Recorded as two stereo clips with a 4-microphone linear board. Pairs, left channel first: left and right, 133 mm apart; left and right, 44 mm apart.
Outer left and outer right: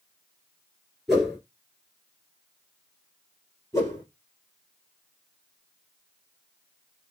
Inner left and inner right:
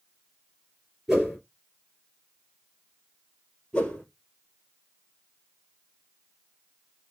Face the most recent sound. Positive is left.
turn(degrees=20)  # may be behind; listen again after turning